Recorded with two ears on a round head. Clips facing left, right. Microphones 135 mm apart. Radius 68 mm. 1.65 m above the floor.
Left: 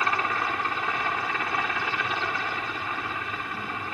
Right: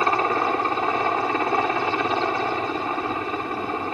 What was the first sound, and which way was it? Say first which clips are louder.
A helicopter: right 6 dB; 25° right (ahead or behind).